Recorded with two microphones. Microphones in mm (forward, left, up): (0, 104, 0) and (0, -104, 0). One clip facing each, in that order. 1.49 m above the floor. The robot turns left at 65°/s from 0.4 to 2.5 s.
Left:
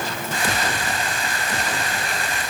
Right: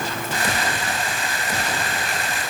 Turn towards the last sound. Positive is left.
No sound to turn to.